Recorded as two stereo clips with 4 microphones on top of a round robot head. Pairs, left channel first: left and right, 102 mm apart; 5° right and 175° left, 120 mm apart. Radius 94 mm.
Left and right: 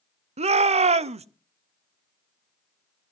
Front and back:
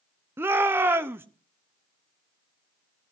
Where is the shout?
105° right, 0.9 m.